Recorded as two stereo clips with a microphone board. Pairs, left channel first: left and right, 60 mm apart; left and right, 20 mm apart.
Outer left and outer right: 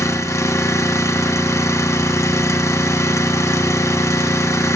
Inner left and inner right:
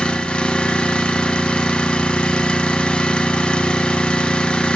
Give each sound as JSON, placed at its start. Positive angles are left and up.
{"t": 0.0, "sound": "an engine running", "side_deg": 55, "distance_m": 1.0}